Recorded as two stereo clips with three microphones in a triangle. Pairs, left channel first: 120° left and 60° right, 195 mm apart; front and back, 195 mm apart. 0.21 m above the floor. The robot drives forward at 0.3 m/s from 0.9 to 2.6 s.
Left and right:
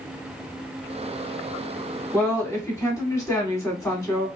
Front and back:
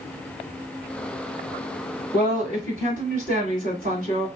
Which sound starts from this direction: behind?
A woman speaking, at 2.1 s.